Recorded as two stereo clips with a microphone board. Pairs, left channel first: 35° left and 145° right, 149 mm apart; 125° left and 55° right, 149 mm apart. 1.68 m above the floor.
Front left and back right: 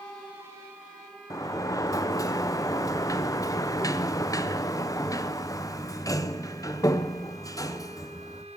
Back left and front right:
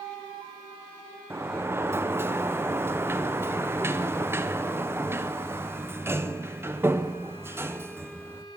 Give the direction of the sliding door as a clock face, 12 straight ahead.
12 o'clock.